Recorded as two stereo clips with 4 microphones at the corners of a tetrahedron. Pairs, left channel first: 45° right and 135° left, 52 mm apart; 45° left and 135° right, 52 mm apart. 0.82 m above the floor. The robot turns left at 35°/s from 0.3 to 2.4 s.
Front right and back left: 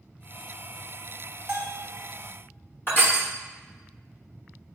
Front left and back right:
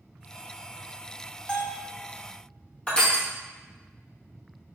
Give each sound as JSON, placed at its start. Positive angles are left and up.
{"t": 1.5, "sound": "a bell", "azimuth_deg": 95, "distance_m": 0.9}
{"t": 2.9, "sound": "crushing", "azimuth_deg": -20, "distance_m": 1.0}